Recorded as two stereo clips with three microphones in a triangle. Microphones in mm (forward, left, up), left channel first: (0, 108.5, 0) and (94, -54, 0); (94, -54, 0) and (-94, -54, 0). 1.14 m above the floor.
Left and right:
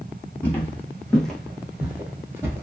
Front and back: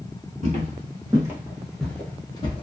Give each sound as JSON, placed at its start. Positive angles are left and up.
{"t": 0.4, "sound": "footsteps", "azimuth_deg": -170, "distance_m": 1.3}